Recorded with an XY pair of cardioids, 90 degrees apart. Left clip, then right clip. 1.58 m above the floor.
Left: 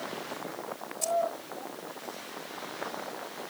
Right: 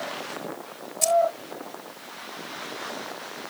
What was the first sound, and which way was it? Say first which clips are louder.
Keys jangling: right 8 dB; 65° right.